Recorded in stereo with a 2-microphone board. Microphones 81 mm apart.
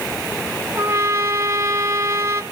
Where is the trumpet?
35° right (ahead or behind), 1.1 m.